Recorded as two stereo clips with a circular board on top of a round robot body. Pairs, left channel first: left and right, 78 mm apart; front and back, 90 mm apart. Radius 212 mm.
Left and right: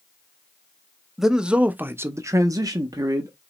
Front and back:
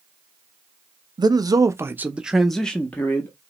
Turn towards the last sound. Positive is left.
turn(degrees=-60)